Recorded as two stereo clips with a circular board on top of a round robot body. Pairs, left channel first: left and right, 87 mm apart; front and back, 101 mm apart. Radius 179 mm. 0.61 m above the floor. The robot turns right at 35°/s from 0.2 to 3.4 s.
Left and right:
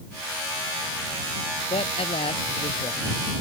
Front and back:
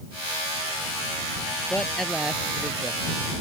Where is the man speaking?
80° left; by 3.1 s 130° left.